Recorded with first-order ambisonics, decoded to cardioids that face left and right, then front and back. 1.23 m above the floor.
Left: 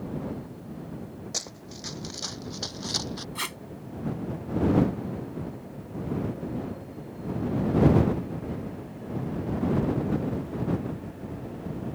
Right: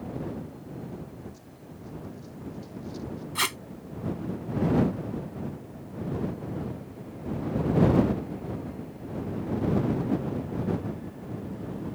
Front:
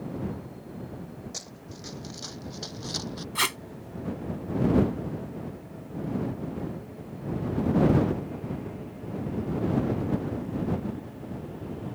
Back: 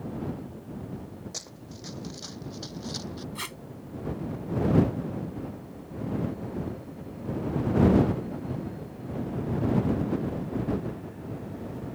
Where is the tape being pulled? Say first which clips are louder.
Right 7 dB, front 12 dB; 30° right.